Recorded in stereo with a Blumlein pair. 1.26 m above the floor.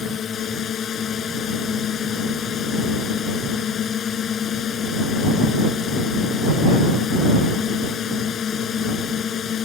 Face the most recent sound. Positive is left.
turn(degrees=25)